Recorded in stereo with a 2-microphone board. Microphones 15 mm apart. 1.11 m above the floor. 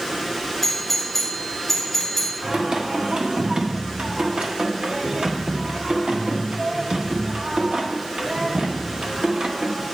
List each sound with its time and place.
0.6 s a doorbell: 5° left (ahead or behind), 4 m
2.4 s singing: 70° right (ahead or behind), 1.5 m